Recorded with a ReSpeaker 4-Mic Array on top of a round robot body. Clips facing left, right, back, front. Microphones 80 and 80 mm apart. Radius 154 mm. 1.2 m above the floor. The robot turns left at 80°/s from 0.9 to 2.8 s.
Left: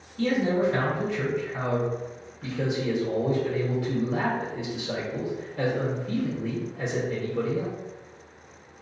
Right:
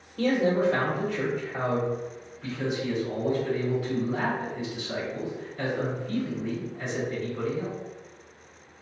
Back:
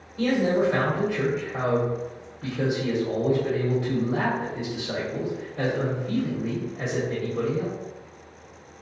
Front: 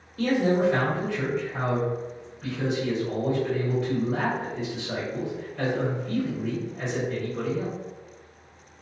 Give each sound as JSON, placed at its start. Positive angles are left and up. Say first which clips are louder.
{"t": 0.2, "sound": "a man speaking", "louder": "even, even", "azimuth_deg": -110, "distance_m": 1.0}